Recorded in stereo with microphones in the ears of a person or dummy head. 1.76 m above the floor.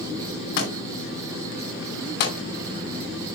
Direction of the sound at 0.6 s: 60° left (ahead or behind).